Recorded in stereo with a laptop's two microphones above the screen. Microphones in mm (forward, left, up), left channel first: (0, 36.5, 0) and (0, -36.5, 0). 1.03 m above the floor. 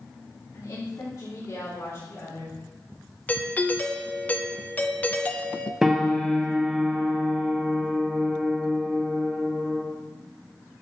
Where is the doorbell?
25° left (ahead or behind), 0.7 m.